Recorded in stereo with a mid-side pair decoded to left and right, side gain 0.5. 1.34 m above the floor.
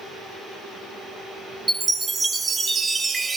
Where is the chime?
30° right, 1.3 m.